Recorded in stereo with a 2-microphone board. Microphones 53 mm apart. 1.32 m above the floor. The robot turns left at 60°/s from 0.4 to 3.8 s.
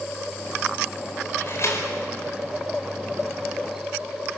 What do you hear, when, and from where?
1.4 s a door slam: 45° left (ahead or behind), 4 m; by 4.4 s 10° right (ahead or behind), 4 m